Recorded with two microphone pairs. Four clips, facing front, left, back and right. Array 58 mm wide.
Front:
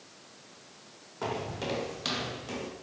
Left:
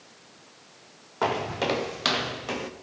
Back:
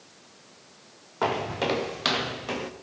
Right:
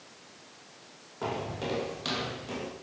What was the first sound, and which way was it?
Footsteps, 130° left.